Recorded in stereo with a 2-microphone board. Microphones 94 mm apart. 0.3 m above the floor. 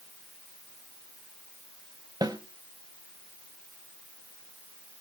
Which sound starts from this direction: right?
A snare drum, at 2.2 s.